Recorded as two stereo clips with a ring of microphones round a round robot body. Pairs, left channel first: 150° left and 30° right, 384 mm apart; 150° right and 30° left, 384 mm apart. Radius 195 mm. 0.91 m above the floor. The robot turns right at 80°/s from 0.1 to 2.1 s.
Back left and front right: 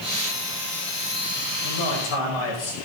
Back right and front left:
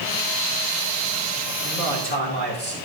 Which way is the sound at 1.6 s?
105° left.